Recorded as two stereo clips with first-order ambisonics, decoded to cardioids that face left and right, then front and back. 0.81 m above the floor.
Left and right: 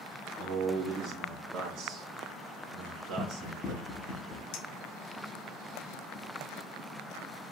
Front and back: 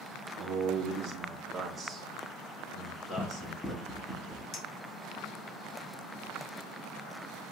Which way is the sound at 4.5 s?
55° left.